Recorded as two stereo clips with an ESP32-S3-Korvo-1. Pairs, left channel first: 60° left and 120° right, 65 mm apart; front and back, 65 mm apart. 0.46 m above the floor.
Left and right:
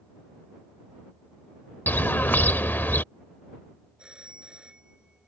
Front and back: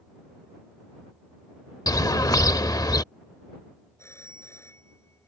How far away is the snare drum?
No snare drum in this recording.